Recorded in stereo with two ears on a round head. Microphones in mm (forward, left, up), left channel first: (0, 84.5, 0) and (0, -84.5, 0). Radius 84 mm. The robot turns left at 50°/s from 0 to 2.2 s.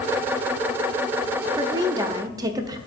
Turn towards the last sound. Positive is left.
turn(degrees=-20)  # may be behind; listen again after turning